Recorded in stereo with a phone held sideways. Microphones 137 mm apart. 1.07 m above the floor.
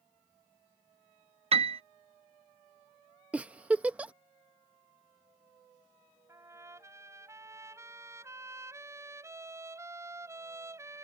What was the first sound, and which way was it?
A piano, 45° right (ahead or behind).